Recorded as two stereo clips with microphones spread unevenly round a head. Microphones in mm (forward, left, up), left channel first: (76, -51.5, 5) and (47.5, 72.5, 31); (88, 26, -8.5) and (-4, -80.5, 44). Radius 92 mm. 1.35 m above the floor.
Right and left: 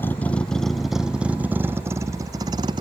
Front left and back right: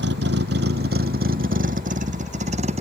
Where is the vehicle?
160° right; by 2.8 s 170° left.